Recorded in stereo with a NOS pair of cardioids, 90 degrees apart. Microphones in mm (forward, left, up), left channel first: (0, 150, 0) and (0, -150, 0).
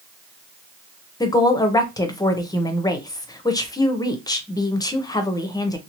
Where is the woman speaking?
10° left, 0.8 m.